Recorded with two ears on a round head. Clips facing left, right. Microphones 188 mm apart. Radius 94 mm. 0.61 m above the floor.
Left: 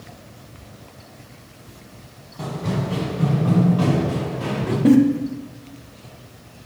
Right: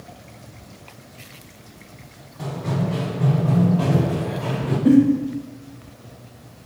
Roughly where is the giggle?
Left.